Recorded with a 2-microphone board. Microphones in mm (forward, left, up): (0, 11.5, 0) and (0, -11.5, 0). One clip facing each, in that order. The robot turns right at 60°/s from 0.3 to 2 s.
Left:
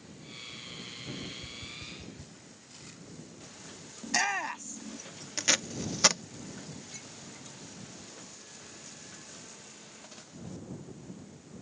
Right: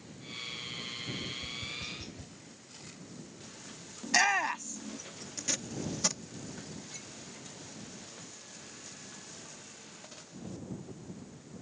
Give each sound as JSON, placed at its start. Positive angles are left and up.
{"t": 1.2, "sound": "tapping", "side_deg": 0}
{"t": 4.0, "sound": "a shout", "side_deg": -15}
{"t": 5.4, "sound": "tape being pulled", "side_deg": 45}